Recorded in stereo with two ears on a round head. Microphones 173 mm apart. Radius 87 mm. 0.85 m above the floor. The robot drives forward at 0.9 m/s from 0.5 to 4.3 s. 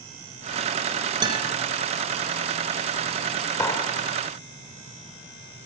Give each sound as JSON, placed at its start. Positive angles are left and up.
{"t": 1.2, "sound": "a guitar", "side_deg": -25, "distance_m": 4.0}
{"t": 3.6, "sound": "a clap", "side_deg": 15, "distance_m": 2.5}